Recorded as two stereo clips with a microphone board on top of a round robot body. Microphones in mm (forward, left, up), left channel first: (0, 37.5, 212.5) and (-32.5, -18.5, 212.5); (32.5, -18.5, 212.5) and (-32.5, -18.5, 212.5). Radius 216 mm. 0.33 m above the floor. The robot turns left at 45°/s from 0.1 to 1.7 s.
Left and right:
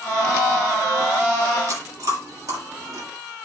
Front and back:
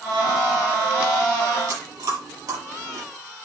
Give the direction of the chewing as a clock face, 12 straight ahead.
5 o'clock.